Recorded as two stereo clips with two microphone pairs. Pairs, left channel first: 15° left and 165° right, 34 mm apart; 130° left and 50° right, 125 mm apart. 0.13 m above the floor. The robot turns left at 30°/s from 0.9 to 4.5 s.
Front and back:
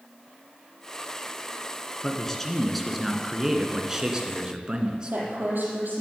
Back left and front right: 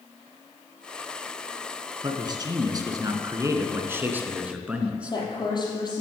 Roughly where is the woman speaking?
Behind.